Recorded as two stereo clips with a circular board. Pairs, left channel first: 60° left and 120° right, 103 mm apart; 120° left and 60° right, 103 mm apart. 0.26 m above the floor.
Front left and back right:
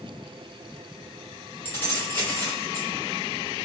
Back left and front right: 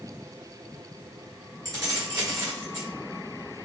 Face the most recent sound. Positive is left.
turn(degrees=-10)